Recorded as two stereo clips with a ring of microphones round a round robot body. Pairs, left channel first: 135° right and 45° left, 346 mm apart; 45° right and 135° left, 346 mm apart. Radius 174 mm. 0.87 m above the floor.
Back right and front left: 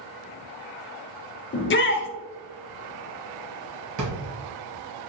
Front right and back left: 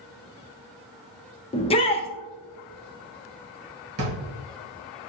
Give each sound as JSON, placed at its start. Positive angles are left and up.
{"t": 1.5, "sound": "a shout", "azimuth_deg": -105, "distance_m": 0.6}
{"t": 4.0, "sound": "a drawer", "azimuth_deg": 85, "distance_m": 1.4}